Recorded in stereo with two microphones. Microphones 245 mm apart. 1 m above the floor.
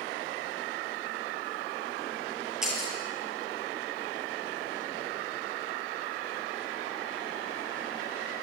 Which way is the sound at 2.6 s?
Centre (ahead or behind).